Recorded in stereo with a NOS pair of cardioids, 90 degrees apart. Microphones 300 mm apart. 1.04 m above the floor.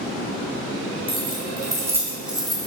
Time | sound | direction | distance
1.1 | keys jangling | 20° right | 4 m